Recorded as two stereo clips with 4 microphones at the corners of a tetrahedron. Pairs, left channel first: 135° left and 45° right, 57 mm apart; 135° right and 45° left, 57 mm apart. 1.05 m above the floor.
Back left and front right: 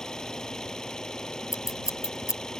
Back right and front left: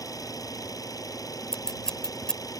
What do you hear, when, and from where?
0.0 s an engine running: 145° right
1.5 s scissors: 145° left